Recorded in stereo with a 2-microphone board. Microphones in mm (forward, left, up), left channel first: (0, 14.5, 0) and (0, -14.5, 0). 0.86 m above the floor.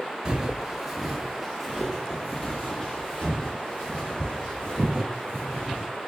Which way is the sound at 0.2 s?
25° right (ahead or behind).